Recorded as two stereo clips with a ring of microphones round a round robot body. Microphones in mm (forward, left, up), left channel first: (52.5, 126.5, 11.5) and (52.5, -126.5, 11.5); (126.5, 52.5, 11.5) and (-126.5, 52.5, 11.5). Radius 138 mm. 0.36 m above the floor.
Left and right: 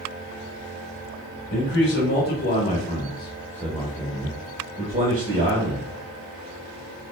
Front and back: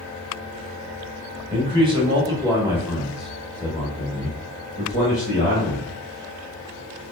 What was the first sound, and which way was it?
A man speaking, 115° left.